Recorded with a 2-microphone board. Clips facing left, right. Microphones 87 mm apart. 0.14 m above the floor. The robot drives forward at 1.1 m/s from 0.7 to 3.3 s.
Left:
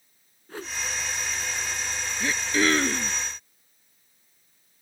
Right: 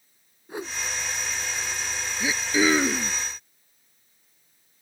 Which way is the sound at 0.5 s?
15° right (ahead or behind).